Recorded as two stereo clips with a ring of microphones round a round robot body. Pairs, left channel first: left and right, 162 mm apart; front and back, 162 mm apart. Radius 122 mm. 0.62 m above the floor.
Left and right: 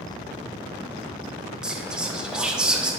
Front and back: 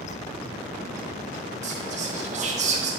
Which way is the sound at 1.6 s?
175° right.